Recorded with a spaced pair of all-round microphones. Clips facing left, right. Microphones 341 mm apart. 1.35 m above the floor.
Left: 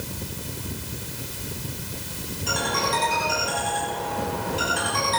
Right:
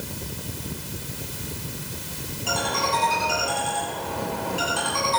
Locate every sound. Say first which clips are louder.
2.5 s a ringtone: even; 25° left (ahead or behind), 6.5 m